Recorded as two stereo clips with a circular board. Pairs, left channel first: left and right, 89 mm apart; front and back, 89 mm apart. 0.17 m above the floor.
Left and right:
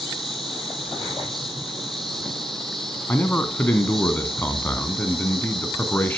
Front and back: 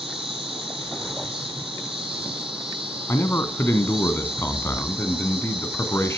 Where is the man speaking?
40° left, 1.4 m.